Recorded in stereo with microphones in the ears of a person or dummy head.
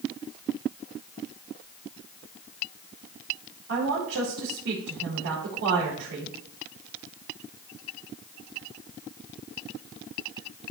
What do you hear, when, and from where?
3.7 s a woman speaking: 80° right, 4.5 m